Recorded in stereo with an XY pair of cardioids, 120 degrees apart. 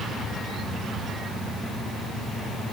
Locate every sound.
Only background noise.